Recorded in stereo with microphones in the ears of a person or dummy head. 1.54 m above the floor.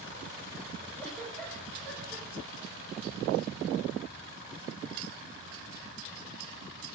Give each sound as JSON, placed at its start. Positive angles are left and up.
{"t": 1.0, "sound": "a giggle", "side_deg": 5, "distance_m": 7.5}